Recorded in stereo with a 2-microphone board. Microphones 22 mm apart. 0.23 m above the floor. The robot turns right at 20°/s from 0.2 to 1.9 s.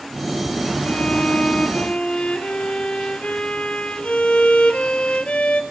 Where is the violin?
70° left (ahead or behind), 1.9 m; by 5.6 s 80° left, 1.9 m.